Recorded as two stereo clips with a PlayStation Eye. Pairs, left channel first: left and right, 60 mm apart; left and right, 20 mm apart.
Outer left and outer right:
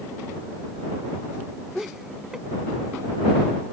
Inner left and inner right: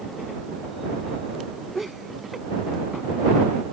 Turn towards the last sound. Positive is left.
turn(degrees=-10)  # may be behind; listen again after turning